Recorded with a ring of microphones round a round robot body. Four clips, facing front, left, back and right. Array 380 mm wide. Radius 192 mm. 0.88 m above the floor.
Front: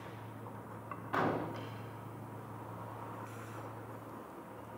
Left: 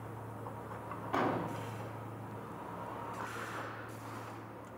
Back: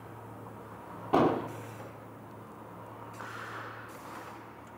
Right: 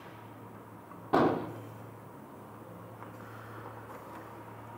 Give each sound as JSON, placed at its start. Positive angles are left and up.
{"t": 1.1, "sound": "an explosion", "azimuth_deg": -145, "distance_m": 2.5}